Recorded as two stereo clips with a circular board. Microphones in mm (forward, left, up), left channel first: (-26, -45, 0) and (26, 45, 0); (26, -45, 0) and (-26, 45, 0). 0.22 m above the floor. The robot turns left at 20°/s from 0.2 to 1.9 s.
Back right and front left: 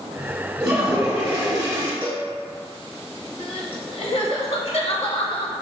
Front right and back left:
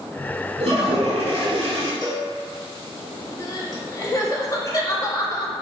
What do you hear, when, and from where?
0.6 s a toilet flushing: 135° left, 1.3 m; by 1.9 s 110° left, 1.3 m
2.0 s a cowbell: 65° right, 1.6 m
3.4 s crying: 110° right, 0.6 m